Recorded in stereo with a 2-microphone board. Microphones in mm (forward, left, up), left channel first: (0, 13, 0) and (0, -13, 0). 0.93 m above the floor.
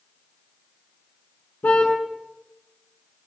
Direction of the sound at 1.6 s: 85° left.